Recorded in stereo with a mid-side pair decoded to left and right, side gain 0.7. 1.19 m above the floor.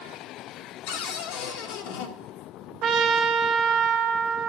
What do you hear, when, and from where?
0.9 s a cupboard door: 70° left, 1.4 m
2.8 s a trumpet: 50° right, 1.4 m